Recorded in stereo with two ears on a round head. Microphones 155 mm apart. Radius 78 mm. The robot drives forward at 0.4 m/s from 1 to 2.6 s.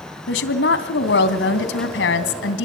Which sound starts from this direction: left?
A woman speaking, at 0.3 s.